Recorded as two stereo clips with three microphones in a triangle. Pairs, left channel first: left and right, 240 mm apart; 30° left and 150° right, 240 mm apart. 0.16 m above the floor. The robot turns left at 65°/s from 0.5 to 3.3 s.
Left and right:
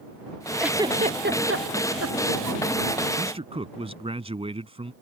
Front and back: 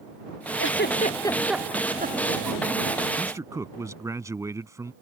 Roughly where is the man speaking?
Right.